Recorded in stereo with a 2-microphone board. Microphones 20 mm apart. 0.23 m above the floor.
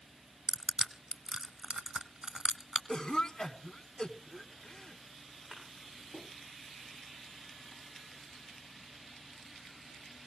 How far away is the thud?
About 9.5 m.